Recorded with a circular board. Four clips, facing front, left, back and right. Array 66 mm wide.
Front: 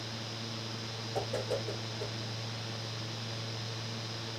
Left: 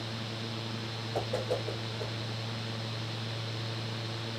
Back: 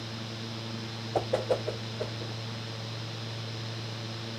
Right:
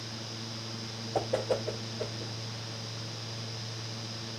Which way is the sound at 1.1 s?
155° right.